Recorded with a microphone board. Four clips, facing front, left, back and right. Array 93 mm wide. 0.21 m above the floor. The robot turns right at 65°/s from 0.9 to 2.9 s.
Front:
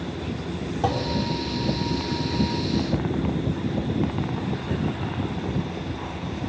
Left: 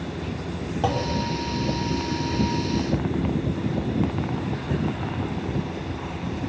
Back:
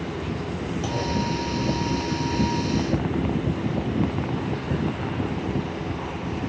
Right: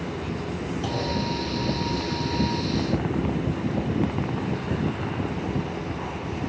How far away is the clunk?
About 4.5 m.